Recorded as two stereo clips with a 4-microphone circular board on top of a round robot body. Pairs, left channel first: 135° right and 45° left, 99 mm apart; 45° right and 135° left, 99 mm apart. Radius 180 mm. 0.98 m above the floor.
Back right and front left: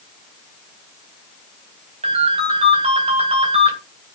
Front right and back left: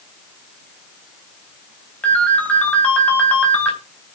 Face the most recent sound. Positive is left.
turn(degrees=35)